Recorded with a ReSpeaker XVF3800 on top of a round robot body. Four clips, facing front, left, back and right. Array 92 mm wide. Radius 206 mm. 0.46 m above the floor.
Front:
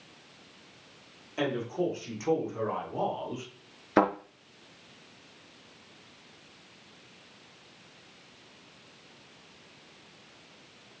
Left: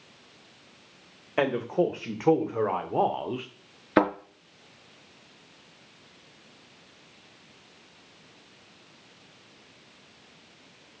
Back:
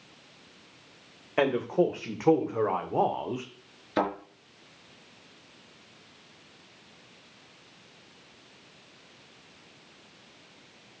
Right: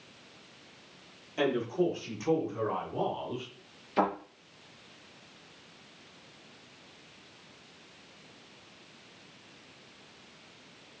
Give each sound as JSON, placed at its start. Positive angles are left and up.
{"t": 1.4, "sound": "a man speaking", "azimuth_deg": 130, "distance_m": 3.0}
{"t": 4.0, "sound": "a thud", "azimuth_deg": 65, "distance_m": 3.5}